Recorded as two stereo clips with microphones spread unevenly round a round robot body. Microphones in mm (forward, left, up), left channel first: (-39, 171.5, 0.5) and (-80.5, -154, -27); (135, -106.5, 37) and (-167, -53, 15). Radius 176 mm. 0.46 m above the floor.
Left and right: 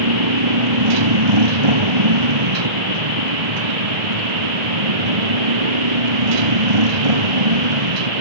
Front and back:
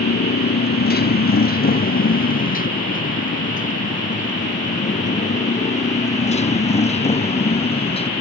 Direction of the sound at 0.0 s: 65° right.